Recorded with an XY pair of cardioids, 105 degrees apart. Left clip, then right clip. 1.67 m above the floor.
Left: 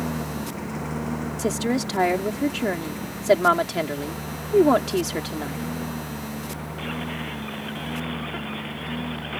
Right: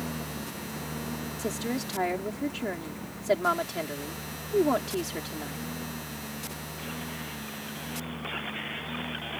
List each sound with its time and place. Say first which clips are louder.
0.0 s a lawn mower: left 6 dB; 45° left
1.4 s a woman speaking: left 8 dB; 50° left